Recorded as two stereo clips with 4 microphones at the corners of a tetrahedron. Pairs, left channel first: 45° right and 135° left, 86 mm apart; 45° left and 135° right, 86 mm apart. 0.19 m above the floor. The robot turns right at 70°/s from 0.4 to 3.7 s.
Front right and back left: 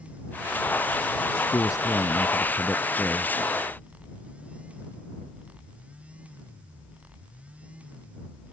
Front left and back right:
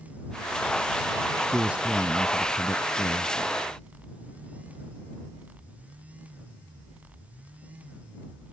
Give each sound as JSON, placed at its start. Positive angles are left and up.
{"t": 1.5, "sound": "a man speaking", "azimuth_deg": -80}